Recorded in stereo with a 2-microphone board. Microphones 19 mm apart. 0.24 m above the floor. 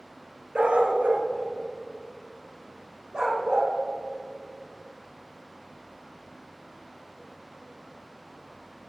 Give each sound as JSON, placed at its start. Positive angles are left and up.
{"t": 0.6, "sound": "a dog barking", "side_deg": -65, "distance_m": 0.8}